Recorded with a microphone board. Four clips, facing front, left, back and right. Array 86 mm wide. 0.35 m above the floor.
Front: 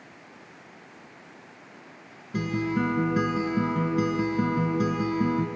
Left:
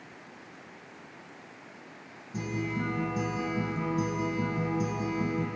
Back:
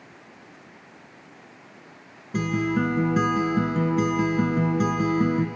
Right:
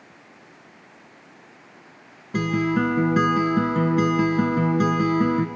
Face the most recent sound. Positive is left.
turn(degrees=-100)